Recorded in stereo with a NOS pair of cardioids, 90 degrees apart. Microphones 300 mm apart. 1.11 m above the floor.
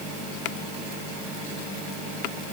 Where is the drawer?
I don't hear a drawer.